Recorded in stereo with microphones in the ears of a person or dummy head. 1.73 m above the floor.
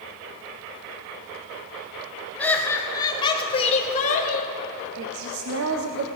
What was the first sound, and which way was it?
Laughter, 10° left (ahead or behind).